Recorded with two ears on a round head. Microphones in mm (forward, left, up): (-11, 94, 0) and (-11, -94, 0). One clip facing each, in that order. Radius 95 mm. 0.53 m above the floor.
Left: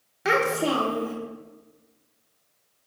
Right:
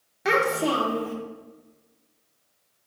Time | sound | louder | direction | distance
0.2 | a child speaking | even | 5° left (ahead or behind) | 0.5 m